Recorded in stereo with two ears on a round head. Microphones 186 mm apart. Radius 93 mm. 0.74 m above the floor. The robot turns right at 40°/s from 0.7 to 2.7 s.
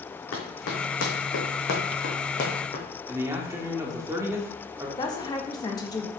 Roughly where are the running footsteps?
Left.